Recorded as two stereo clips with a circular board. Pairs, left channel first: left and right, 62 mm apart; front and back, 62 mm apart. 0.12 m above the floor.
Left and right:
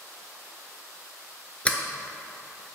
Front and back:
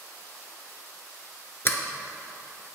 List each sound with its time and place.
1.6 s a sliding door: 30° left, 0.6 m